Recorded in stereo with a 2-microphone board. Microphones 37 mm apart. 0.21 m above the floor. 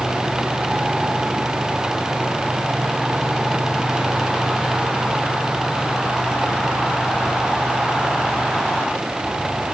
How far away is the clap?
I don't hear a clap.